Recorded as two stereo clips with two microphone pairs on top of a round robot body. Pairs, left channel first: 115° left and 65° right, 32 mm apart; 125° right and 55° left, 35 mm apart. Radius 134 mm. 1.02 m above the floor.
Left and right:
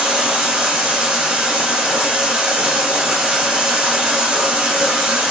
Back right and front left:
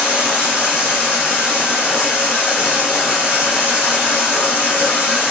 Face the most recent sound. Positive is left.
turn(degrees=-105)